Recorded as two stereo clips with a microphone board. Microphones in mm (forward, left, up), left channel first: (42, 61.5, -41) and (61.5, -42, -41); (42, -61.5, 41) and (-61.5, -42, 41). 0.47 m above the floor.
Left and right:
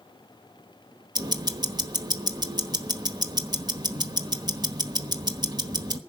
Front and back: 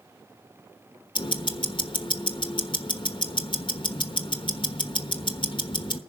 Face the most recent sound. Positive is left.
turn(degrees=-40)